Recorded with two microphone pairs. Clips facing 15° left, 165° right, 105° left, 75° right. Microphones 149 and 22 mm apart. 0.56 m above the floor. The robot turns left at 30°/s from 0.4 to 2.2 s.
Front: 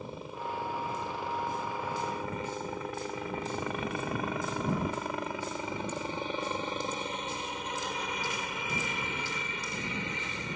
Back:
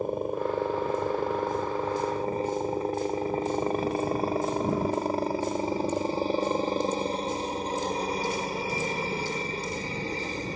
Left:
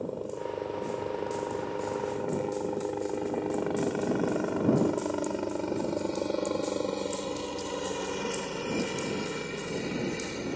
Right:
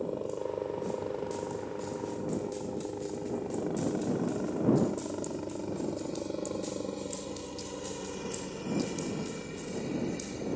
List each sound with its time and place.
0.0 s a helicopter: 155° right; by 10.6 s 150° left